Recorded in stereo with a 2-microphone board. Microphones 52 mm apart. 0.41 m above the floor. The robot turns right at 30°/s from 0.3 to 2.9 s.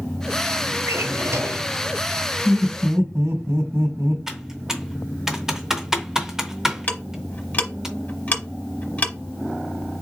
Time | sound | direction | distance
0.9 | a drawer | 60° right (ahead or behind) | 1.1 m
2.5 | laughter | 50° right (ahead or behind) | 3 m
4.3 | typing on a keyboard | 10° right (ahead or behind) | 0.8 m
6.9 | ticking | 30° left (ahead or behind) | 0.8 m